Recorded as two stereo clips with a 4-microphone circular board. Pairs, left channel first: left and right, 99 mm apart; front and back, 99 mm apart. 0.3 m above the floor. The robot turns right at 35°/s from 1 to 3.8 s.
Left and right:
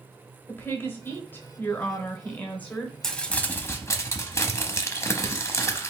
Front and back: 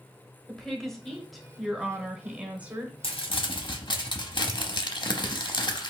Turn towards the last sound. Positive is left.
turn(degrees=30)